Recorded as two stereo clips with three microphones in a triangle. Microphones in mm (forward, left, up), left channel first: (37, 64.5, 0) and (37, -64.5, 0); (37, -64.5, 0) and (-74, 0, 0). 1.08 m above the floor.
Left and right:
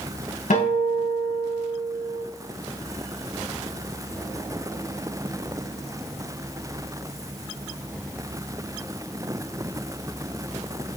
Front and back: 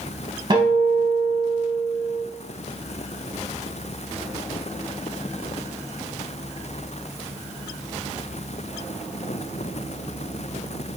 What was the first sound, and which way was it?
A guitar, 95° left.